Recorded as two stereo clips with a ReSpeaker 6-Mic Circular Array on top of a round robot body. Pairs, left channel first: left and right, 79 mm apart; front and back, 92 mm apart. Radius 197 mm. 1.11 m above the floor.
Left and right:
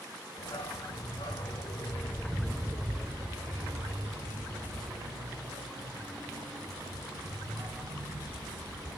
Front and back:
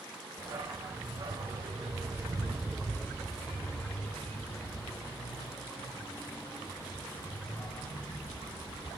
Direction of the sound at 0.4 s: 130° left.